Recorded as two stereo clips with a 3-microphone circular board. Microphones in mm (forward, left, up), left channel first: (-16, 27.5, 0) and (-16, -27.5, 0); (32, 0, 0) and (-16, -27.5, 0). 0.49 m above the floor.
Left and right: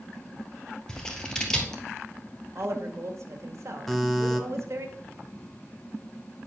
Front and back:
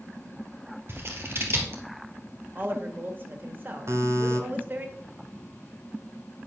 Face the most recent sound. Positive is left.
turn(degrees=175)